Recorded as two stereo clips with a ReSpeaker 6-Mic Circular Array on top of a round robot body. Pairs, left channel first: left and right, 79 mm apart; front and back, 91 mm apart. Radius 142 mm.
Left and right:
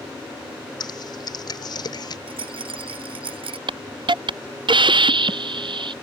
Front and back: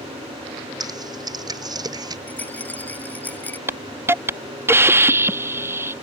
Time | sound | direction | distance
0.8 | typing on a keyboard | 130° left | ?
2.3 | a rattle | 75° right | ?
3.7 | a hiss | 115° right | ?